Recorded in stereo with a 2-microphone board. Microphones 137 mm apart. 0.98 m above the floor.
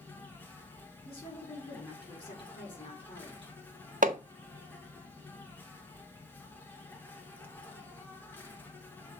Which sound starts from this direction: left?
A woman speaking, at 1.1 s.